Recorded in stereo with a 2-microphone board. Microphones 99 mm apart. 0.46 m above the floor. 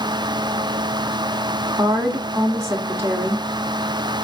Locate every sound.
1.8 s a woman speaking: 30° right (ahead or behind), 0.8 m